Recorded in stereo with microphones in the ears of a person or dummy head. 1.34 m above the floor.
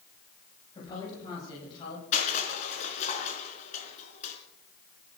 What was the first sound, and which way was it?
A woman speaking, 25° left (ahead or behind).